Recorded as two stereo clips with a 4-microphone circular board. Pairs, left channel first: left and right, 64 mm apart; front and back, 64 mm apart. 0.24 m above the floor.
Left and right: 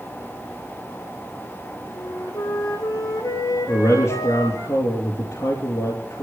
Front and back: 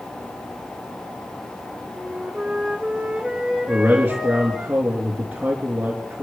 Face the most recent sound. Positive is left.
turn(degrees=115)